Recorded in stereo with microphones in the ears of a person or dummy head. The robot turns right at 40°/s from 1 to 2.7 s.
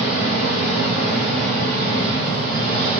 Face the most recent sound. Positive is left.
turn(degrees=165)